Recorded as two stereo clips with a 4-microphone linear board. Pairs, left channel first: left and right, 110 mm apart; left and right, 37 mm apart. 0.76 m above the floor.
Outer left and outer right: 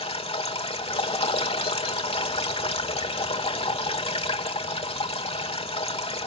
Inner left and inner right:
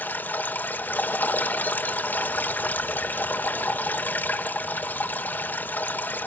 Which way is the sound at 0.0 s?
60° left (ahead or behind).